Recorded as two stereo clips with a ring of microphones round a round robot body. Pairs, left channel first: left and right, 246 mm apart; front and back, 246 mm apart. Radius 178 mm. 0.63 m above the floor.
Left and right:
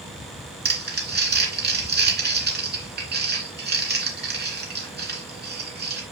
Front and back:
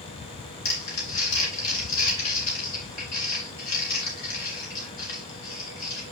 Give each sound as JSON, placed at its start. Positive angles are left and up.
{"t": 0.7, "sound": "crumpling", "azimuth_deg": -40, "distance_m": 3.0}